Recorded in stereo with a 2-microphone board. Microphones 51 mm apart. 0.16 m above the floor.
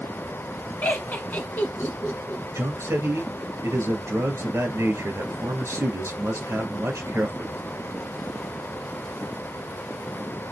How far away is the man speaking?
About 2 m.